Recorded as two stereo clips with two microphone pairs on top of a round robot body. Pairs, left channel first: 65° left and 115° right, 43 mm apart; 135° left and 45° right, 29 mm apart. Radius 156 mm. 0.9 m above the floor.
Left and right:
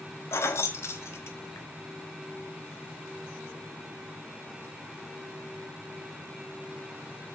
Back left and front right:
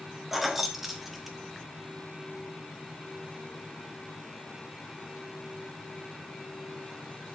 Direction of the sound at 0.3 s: 40° left.